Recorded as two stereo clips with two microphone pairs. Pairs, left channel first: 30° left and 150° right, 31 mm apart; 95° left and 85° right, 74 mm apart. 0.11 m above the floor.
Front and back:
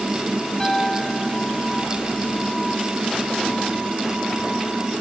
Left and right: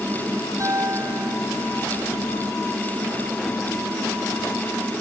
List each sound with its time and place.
0.6 s a piano: 40° right